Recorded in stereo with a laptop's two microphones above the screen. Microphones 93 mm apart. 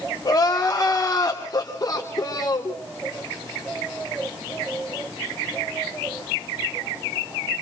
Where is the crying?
45° left (ahead or behind), 3 m.